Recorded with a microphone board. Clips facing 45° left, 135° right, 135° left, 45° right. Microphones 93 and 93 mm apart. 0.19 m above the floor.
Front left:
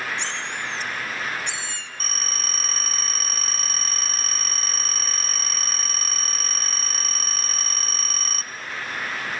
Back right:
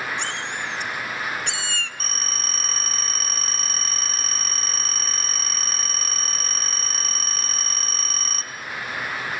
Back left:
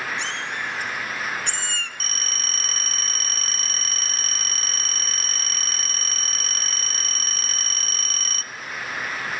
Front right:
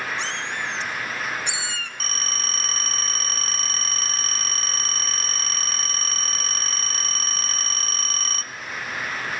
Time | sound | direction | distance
0.2 | a cat meowing | 100° right | 1.8 m
2.0 | a phone ringing | 45° right | 0.7 m